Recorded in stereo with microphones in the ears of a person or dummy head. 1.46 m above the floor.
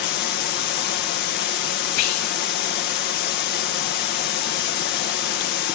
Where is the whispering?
85° left, 1.1 m.